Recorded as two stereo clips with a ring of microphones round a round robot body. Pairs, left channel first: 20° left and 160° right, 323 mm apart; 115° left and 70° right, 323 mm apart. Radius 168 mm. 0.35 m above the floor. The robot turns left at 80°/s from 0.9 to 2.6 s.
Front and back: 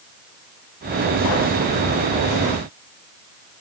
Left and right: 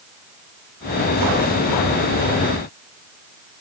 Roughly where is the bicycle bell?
I don't hear a bicycle bell.